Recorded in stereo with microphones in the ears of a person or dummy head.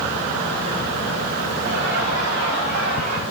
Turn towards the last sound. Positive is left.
turn(degrees=-85)